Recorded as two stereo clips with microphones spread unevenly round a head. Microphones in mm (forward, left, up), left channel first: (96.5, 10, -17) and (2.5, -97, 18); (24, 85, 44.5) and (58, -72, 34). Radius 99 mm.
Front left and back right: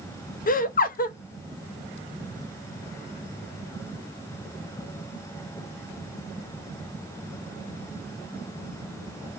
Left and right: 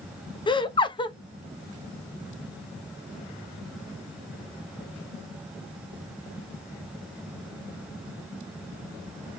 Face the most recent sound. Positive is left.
turn(degrees=40)